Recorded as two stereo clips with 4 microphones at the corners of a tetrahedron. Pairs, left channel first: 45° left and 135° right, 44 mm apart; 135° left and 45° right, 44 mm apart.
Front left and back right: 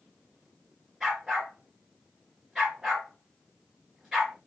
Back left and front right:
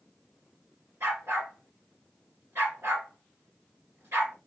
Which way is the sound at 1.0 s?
60° right.